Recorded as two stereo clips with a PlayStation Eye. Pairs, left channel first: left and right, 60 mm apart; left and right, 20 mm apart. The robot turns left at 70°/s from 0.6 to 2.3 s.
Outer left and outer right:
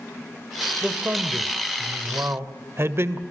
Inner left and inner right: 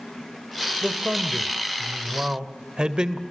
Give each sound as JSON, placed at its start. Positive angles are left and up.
{"t": 0.8, "sound": "a man speaking", "azimuth_deg": -15, "distance_m": 1.6}